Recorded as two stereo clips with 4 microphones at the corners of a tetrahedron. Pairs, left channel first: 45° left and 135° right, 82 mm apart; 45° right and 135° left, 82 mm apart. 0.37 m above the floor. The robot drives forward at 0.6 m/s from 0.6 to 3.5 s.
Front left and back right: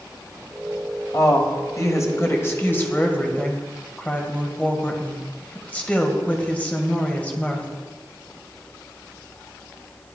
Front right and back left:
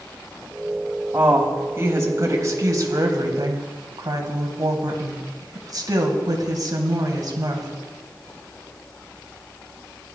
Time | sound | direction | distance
1.1 | a woman speaking | 75° left | 2.5 m